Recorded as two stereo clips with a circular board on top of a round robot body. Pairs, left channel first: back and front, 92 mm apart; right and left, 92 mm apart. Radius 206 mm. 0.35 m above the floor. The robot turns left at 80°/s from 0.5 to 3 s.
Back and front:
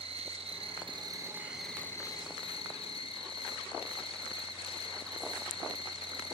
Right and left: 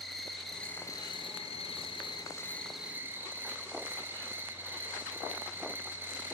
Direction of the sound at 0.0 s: Straight ahead.